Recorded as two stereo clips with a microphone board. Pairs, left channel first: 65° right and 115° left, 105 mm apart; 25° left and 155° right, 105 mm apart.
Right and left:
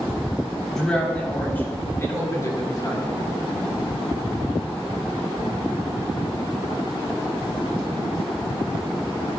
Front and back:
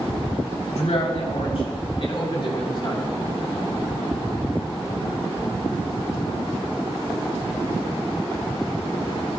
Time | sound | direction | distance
0.7 | a man speaking | 20° left | 4 m